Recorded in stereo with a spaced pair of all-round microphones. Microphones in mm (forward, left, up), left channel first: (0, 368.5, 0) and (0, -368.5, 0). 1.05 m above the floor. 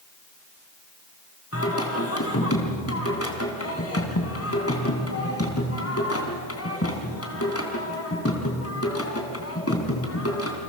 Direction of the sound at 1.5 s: 20° left (ahead or behind).